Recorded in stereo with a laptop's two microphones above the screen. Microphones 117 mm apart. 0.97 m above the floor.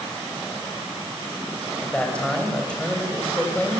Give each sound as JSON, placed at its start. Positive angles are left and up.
{"t": 1.8, "sound": "a man speaking", "side_deg": 10, "distance_m": 4.5}